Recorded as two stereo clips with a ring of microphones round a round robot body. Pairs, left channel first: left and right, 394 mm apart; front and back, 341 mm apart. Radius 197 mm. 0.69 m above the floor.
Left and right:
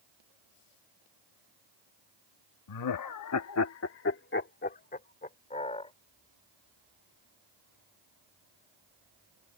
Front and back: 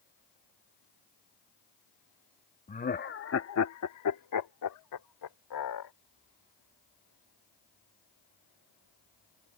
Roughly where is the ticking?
I don't hear ticking.